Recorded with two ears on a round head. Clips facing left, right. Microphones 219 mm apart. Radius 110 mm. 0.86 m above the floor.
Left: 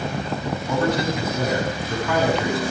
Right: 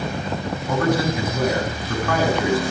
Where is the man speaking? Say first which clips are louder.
Right 2 dB; 45° right (ahead or behind), 5.5 m.